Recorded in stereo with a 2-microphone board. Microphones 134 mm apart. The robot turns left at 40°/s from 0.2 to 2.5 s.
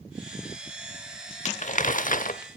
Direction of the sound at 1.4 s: 115° left.